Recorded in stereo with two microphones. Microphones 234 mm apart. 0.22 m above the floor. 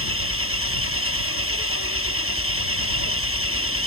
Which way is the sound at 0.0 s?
70° right (ahead or behind).